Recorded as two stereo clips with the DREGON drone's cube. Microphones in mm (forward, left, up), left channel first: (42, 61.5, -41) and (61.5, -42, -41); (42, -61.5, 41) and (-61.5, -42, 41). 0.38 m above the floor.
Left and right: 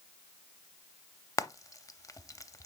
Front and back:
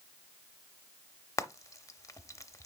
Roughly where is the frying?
Ahead left.